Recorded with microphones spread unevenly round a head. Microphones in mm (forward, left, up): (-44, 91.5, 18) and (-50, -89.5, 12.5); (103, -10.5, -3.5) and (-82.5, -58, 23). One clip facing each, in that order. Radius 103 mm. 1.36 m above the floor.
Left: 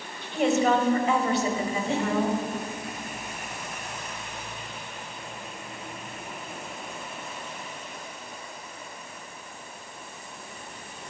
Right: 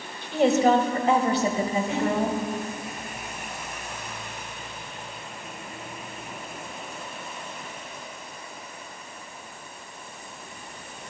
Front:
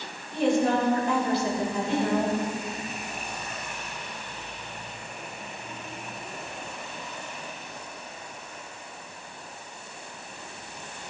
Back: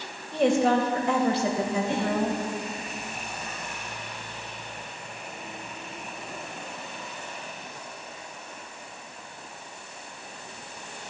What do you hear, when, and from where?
0.3 s a woman speaking: 145° right, 1.6 m
1.9 s breathing: 145° left, 2.5 m